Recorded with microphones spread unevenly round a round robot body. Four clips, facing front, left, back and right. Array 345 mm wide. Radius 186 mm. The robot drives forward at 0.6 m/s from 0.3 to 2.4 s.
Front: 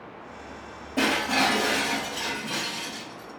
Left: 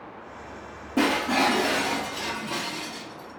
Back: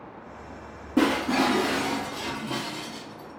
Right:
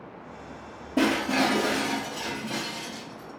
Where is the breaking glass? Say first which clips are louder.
Left 1 dB, back 2 dB; 165° right, 1.3 m; by 3.3 s 170° right, 2 m.